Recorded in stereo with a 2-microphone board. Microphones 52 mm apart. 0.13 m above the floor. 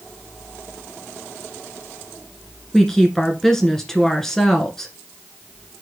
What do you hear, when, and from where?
2.7 s a woman speaking: 10° left (ahead or behind), 1.6 m